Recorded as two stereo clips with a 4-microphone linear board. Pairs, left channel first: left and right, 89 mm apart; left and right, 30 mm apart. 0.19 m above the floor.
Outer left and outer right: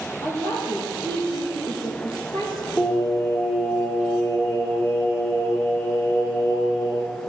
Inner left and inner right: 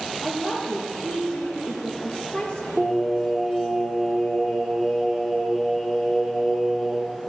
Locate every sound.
0.2 s a woman speaking: 45° left (ahead or behind), 4.5 m
2.8 s singing: 30° left (ahead or behind), 5.5 m